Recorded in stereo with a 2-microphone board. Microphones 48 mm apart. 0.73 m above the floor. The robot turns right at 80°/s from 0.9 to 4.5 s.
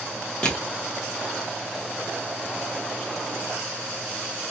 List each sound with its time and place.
0.4 s crushing: 20° left (ahead or behind), 1.0 m